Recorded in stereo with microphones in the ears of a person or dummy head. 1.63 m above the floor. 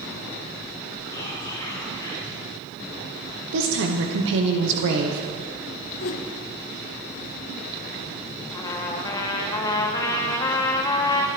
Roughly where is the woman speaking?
Right.